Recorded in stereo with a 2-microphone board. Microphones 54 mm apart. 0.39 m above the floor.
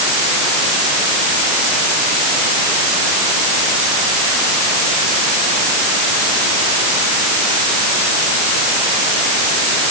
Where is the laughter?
No laughter in this recording.